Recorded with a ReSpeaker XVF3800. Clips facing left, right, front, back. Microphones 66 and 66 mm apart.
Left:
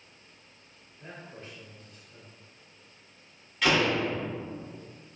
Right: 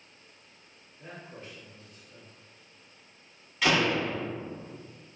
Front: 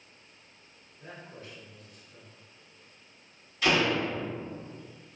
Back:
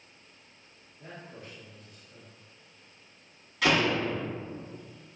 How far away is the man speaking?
About 1.2 m.